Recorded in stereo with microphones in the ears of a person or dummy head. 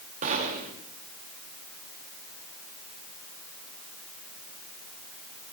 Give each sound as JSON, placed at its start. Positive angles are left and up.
{"t": 0.2, "sound": "a gunshot", "side_deg": -45, "distance_m": 2.5}